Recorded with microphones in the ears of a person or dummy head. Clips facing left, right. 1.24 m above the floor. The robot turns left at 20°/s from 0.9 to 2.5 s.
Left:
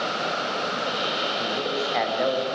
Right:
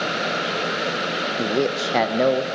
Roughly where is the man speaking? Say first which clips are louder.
Right 9 dB; right.